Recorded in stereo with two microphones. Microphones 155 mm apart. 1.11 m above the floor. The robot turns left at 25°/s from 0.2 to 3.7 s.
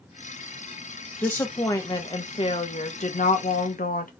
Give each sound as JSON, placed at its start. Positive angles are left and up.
{"t": 1.2, "sound": "a woman speaking", "azimuth_deg": 170, "distance_m": 1.0}